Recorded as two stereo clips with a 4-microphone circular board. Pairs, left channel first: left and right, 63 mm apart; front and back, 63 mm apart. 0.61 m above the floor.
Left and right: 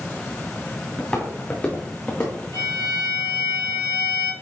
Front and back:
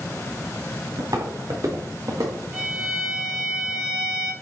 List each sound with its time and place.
1.0 s footsteps: 160° left, 4 m; by 2.4 s 140° left, 3.5 m
2.5 s a violin: 110° left, 4 m